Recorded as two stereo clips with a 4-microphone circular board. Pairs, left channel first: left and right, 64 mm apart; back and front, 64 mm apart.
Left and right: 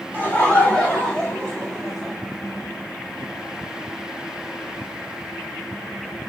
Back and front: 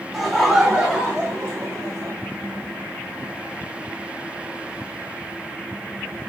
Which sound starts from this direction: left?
Laughter, at 0.1 s.